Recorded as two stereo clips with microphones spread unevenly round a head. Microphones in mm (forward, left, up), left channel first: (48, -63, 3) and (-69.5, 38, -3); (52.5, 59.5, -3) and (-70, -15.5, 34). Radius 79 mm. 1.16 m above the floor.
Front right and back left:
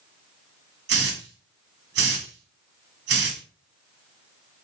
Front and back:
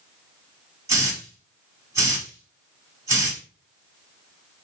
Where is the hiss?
145° left, 1.5 m.